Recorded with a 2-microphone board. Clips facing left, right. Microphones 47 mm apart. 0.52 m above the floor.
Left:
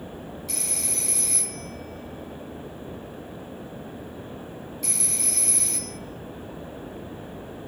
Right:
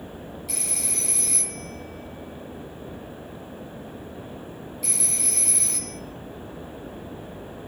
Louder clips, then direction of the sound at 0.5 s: Right 1 dB; 5° right (ahead or behind).